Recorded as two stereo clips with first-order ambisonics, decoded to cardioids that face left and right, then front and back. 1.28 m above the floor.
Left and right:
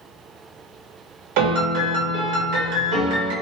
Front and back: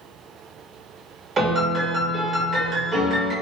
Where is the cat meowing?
I don't hear a cat meowing.